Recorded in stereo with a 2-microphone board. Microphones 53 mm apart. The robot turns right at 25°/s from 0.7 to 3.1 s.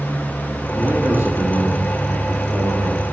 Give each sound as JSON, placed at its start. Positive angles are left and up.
{"t": 0.8, "sound": "a man speaking", "azimuth_deg": -145, "distance_m": 1.6}